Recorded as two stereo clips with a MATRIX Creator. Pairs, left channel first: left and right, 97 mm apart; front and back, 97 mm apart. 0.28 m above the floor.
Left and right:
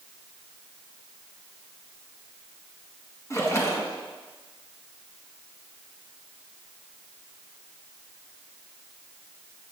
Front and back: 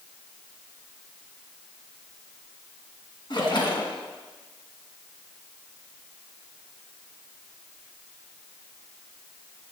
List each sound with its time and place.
3.3 s a splash: 30° left, 1.8 m